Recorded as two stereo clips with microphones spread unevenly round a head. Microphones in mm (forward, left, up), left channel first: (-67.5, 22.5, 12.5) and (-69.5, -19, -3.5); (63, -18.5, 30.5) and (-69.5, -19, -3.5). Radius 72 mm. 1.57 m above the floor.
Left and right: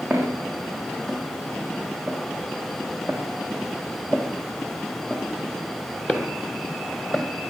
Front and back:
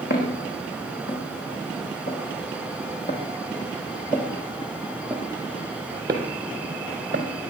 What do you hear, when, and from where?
0.1 s footsteps: 5° left, 5 m; by 7.2 s 130° left, 2.5 m